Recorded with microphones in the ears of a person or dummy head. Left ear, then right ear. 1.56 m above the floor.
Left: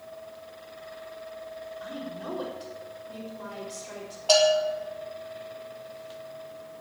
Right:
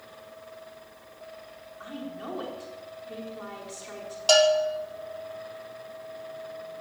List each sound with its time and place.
1.8 s a woman speaking: 50° right (ahead or behind), 4.5 m
4.3 s a bell: 85° right, 4 m